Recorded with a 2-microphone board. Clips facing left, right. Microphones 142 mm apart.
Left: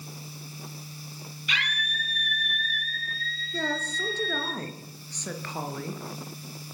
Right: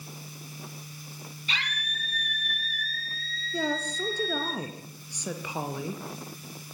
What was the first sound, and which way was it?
A scream, 30° right (ahead or behind).